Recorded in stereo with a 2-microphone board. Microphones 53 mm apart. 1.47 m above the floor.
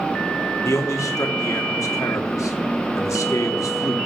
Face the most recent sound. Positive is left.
turn(degrees=75)  # may be behind; listen again after turning